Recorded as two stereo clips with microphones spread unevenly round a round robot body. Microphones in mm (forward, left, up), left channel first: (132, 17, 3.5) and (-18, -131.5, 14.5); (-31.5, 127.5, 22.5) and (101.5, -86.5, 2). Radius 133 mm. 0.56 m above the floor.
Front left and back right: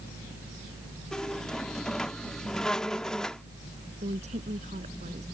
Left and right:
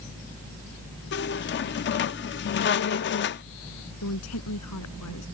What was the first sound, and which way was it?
A squeak, 125° left.